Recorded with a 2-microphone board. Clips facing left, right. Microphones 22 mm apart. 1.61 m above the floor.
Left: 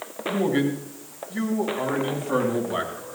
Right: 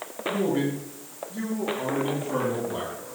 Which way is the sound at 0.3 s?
80° left.